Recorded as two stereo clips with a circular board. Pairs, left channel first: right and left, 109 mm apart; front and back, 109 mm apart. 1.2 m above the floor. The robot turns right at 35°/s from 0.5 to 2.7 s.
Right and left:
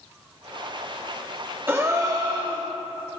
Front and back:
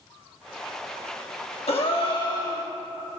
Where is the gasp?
20° left, 1.4 m; by 2.7 s 60° left, 1.4 m.